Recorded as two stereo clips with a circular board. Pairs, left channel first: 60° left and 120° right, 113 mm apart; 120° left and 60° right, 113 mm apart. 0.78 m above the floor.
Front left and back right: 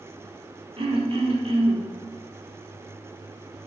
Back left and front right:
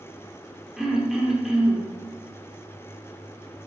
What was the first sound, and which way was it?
Throat clearing, 150° right.